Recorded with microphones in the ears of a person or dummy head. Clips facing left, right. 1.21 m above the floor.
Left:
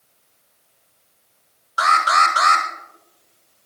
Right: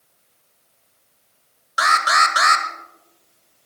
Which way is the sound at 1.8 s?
20° right (ahead or behind).